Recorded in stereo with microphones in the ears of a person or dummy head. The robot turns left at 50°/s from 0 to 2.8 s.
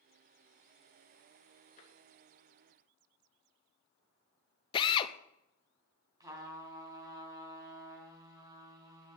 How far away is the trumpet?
About 3 m.